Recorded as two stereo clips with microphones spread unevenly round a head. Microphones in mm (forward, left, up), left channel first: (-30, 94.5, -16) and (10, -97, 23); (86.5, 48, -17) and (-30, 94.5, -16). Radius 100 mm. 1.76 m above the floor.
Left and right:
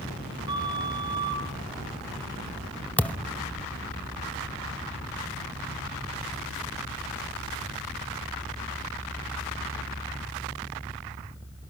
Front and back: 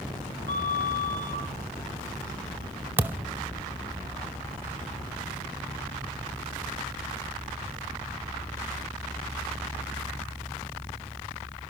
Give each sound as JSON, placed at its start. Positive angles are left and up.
{"t": 0.5, "sound": "a flute", "azimuth_deg": -10, "distance_m": 7.0}
{"t": 3.0, "sound": "a thud", "azimuth_deg": -160, "distance_m": 1.1}